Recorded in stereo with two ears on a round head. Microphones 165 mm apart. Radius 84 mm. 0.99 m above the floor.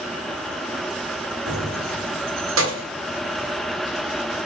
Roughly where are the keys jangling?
Right.